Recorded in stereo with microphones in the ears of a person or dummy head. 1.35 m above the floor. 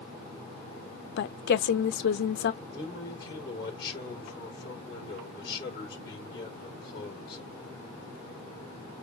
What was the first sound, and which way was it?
A woman speaking, 60° left (ahead or behind).